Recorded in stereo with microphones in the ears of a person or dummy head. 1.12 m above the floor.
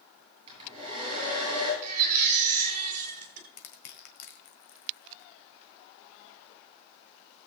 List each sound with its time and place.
0.5 s a hair dryer: 30° right (ahead or behind), 9 m
1.8 s a baby crying: 40° right (ahead or behind), 3 m
3.6 s crushing: 60° left (ahead or behind), 1.9 m